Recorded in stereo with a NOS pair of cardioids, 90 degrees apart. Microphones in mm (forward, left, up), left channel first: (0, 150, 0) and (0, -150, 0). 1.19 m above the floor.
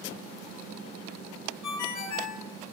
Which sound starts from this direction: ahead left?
A ringtone, at 1.6 s.